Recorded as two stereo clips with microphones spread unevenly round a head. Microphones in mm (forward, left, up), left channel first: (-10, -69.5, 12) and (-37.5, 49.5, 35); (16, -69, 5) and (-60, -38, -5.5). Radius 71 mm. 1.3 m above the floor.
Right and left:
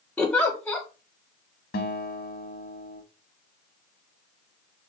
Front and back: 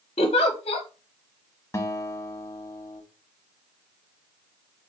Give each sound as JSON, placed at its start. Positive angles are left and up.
{"t": 0.2, "sound": "a giggle", "azimuth_deg": 0, "distance_m": 0.9}
{"t": 1.7, "sound": "a guitar", "azimuth_deg": -80, "distance_m": 1.1}